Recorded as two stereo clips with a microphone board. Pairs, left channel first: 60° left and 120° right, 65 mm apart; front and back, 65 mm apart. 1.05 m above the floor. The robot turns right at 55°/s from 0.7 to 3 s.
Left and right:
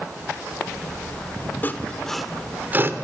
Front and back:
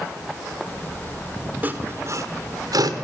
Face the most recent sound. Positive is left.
turn(degrees=-170)